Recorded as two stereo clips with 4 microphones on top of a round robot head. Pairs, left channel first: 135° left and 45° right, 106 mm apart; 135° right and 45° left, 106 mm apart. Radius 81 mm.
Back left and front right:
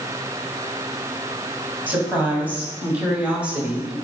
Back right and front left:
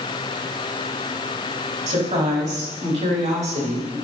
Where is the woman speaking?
30° left, 3.5 m; by 4.0 s 35° left, 2.5 m.